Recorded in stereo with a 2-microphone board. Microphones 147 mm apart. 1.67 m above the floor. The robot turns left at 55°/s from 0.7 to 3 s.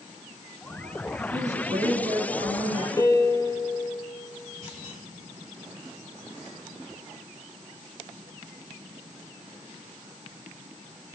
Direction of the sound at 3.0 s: 20° left (ahead or behind).